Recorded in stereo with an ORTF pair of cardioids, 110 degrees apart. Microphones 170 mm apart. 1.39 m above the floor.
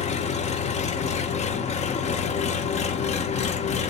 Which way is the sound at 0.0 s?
45° left.